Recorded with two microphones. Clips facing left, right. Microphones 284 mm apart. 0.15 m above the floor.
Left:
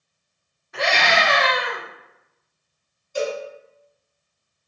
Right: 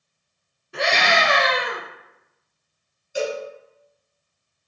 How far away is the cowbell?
About 1.2 m.